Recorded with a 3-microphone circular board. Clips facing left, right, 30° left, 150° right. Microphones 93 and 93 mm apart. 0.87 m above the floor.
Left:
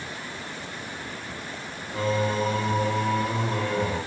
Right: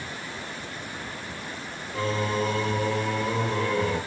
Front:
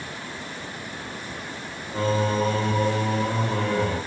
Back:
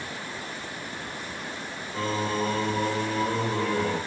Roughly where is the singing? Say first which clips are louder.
Left 2 dB, front 5 dB; ahead left.